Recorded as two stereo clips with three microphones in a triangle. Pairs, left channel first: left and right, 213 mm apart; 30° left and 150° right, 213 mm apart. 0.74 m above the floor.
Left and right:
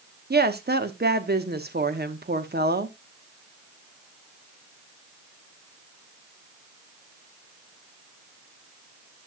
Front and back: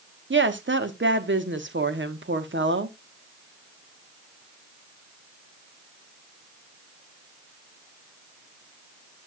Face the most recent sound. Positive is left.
turn(degrees=-130)